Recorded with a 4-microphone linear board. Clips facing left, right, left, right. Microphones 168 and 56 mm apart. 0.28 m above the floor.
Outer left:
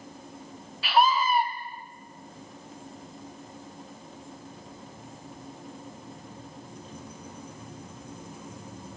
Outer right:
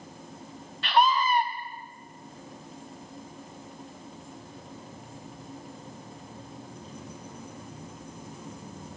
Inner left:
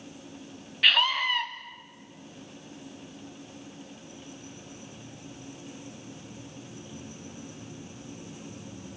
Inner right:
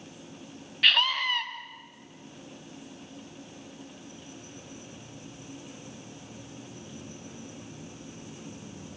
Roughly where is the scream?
Centre.